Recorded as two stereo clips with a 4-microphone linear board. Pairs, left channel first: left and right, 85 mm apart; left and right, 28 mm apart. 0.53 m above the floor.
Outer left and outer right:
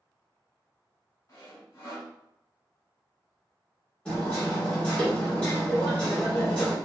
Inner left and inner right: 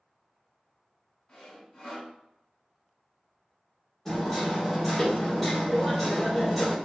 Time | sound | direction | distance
1.3 | sawing | 35° left (ahead or behind) | 1.2 m
4.0 | hammering | 15° left (ahead or behind) | 1.4 m